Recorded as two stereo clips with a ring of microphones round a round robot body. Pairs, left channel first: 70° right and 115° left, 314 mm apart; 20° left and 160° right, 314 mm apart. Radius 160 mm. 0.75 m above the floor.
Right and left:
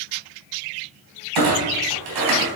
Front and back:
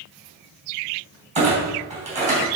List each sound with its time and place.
1.4 s a clunk: 130° left, 3 m